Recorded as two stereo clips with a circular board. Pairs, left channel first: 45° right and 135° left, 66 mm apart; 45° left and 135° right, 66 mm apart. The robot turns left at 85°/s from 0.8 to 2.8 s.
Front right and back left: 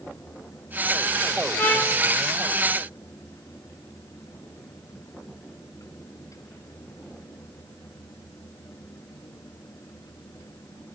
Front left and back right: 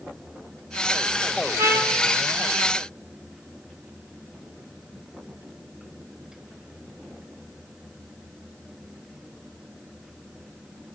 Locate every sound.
1.6 s a trumpet: 110° right, 0.8 m; by 2.0 s 145° right, 0.8 m